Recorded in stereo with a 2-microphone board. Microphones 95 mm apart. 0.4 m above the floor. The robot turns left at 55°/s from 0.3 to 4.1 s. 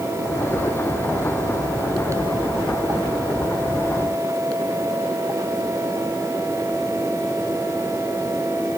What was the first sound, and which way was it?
Only background noise.